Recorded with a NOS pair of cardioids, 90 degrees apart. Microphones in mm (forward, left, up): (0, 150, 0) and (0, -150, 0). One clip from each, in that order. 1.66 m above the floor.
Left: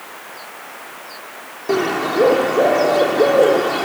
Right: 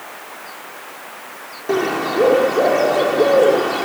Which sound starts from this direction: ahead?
A bird, at 1.7 s.